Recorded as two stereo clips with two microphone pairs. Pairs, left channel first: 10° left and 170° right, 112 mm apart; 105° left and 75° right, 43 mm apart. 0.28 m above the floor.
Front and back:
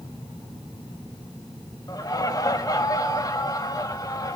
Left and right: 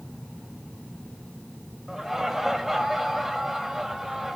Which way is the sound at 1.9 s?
Straight ahead.